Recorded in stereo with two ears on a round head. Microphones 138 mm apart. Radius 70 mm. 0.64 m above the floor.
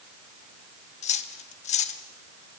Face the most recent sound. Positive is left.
turn(degrees=50)  # may be behind; listen again after turning